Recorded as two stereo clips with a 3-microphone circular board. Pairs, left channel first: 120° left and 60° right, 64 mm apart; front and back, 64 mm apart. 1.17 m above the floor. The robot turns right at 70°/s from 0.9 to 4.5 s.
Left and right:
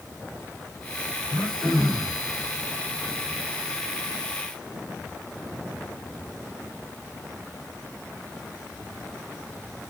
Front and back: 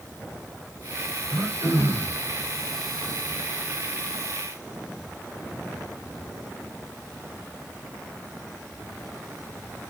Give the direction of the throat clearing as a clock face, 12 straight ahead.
7 o'clock.